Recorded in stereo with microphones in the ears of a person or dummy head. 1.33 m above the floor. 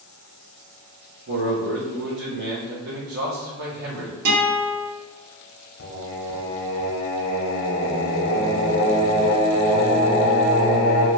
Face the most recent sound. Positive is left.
turn(degrees=70)  # may be behind; listen again after turning